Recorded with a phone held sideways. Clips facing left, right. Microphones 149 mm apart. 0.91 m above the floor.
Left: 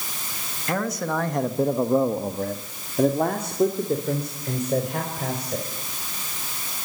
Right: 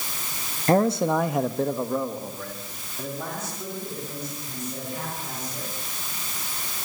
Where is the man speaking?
40° right (ahead or behind), 1.5 m; by 5.6 s 80° left, 5.5 m.